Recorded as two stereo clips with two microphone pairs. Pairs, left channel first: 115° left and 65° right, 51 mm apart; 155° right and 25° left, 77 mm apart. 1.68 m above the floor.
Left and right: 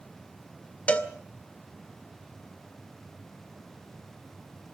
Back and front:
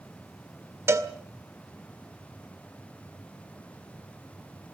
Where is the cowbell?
60° left, 1.9 m.